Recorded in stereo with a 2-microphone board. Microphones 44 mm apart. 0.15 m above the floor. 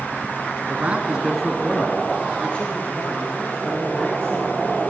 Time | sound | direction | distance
0.7 | a man speaking | 40° right (ahead or behind) | 1.5 m